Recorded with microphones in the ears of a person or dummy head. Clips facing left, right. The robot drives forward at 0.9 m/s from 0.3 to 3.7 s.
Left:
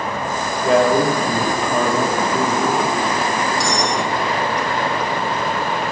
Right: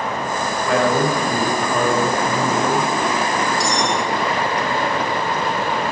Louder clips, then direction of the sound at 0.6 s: Left 4 dB; 25° left (ahead or behind).